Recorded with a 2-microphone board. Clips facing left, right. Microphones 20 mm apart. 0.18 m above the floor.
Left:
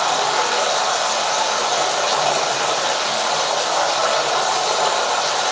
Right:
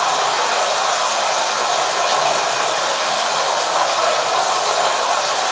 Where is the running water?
85° right, 1.4 m.